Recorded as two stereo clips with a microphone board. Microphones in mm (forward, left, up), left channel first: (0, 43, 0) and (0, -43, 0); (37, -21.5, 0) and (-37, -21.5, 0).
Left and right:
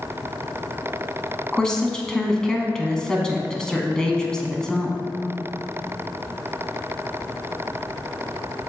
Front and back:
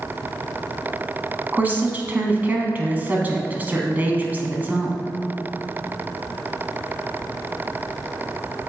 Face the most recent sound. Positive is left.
turn(degrees=160)